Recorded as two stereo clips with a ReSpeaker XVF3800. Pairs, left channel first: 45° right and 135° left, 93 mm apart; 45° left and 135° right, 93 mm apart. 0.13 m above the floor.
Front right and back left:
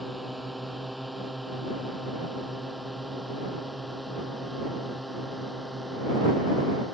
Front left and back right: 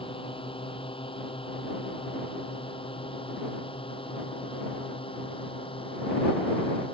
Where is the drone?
45° left.